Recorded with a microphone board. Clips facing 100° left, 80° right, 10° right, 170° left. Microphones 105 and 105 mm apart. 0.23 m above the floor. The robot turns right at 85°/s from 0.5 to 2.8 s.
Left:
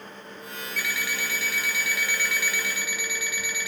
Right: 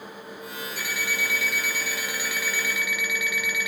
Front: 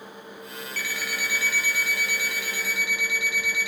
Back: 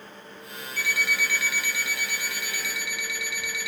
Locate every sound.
0.8 s an alarm clock: 125° right, 1.3 m; by 3.7 s 45° left, 1.3 m